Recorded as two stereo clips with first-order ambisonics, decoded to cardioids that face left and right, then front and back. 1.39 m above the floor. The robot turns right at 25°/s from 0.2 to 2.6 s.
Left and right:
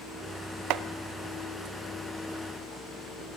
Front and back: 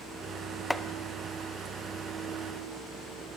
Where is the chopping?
85° right, 0.6 m.